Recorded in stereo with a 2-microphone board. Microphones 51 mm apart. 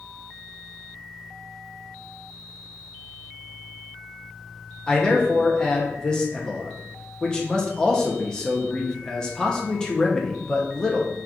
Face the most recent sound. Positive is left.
turn(degrees=15)  # may be behind; listen again after turning